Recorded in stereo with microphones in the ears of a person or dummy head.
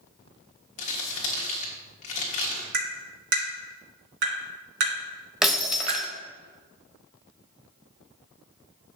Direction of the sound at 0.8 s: 40° left (ahead or behind).